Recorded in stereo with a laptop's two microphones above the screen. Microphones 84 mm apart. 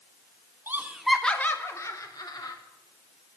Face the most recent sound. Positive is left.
turn(degrees=55)  # may be behind; listen again after turning